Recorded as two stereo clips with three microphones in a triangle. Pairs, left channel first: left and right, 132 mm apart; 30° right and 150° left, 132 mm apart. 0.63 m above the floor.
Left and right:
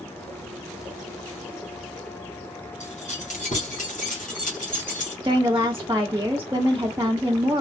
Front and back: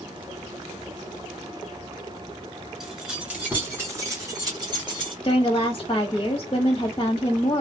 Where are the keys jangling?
65° left, 2 m; by 5.1 s 100° left, 2.5 m.